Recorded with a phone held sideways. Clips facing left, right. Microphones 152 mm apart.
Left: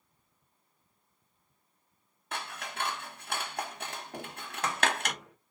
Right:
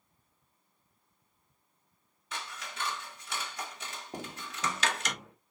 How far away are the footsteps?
About 0.9 m.